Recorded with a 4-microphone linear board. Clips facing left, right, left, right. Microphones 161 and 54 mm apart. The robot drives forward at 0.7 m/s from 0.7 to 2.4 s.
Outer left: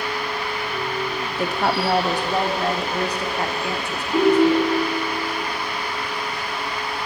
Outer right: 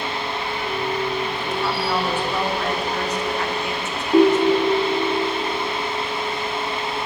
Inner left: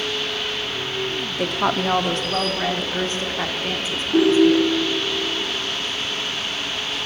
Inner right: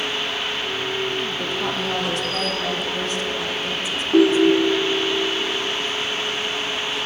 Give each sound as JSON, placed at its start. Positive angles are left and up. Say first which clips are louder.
{"t": 1.4, "sound": "a woman speaking", "louder": "outer left 2 dB, inner left 3 dB", "side_deg": 70, "distance_m": 0.6}
{"t": 4.1, "sound": "a ringtone", "louder": "outer right 1 dB, even", "side_deg": -35, "distance_m": 1.1}